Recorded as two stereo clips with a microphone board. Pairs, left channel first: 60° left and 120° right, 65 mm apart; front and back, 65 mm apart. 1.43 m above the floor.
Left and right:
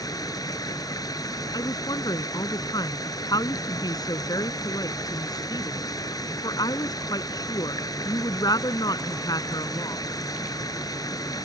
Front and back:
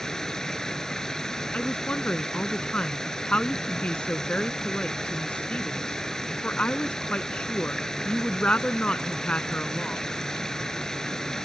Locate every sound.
0.0 s running water: 80° left
1.5 s a woman speaking: 70° left